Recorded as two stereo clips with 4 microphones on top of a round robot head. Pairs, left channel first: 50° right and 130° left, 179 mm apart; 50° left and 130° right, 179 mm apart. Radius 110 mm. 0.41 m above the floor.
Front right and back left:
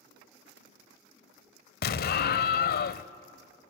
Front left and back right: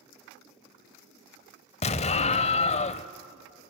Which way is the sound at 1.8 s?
10° right.